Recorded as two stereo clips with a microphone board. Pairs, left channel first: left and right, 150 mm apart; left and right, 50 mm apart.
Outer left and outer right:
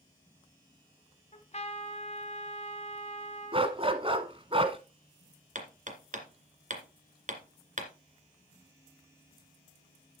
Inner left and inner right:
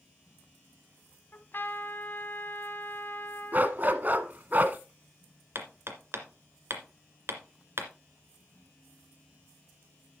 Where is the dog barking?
35° right (ahead or behind), 1.2 m.